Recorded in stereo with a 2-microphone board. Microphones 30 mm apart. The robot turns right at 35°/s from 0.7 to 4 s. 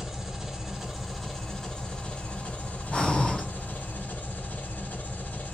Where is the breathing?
40° left (ahead or behind), 1.7 m; by 3.4 s 25° left (ahead or behind), 1.7 m.